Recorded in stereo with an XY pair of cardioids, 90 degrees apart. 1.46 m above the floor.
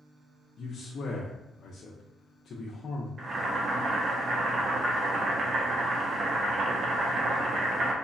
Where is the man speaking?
65° left, 0.7 m.